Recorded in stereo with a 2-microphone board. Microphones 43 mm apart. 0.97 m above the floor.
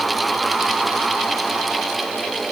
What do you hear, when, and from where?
Only background noise.